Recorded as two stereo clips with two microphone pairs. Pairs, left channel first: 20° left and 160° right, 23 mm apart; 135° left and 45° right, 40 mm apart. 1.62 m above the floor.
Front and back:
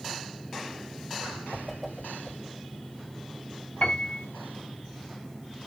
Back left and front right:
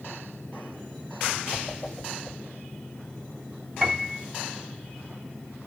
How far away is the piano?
About 4 m.